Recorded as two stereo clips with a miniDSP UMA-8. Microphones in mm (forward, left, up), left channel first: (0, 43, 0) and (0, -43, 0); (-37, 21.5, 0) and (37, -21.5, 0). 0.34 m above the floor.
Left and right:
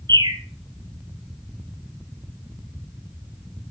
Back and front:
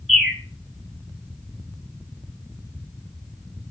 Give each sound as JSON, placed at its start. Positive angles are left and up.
{"t": 0.1, "sound": "a bird", "azimuth_deg": -120, "distance_m": 1.5}